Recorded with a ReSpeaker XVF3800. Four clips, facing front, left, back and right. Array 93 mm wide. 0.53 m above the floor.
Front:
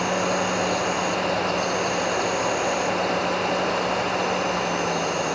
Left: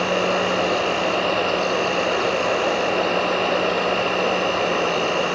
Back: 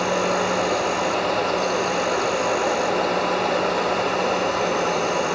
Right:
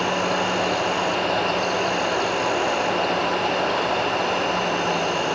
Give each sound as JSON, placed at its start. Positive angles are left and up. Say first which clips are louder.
{"t": 0.0, "sound": "an insect", "louder": "left 2 dB, back 2 dB", "azimuth_deg": 115, "distance_m": 3.0}